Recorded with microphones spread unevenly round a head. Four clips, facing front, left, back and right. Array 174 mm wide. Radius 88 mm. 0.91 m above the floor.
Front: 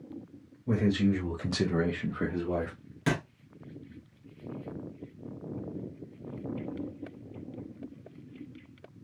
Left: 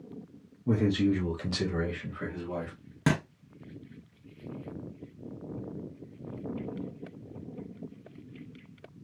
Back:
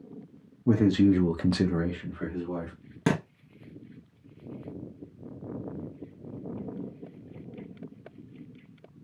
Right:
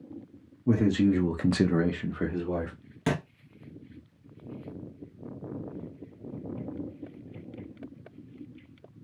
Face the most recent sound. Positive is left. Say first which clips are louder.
# left 1 dB, back 3 dB
turn(degrees=140)